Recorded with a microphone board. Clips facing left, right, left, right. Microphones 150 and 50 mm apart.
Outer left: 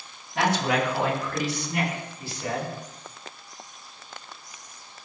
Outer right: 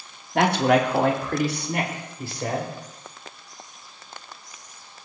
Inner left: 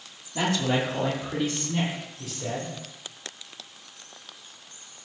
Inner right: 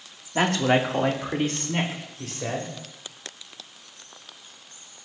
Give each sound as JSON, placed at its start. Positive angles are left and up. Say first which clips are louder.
{"t": 0.3, "sound": "a man speaking", "louder": "outer right 5 dB, inner right 4 dB", "side_deg": -55, "distance_m": 1.5}